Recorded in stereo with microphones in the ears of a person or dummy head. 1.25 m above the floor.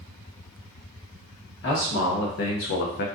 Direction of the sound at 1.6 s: 70° left (ahead or behind).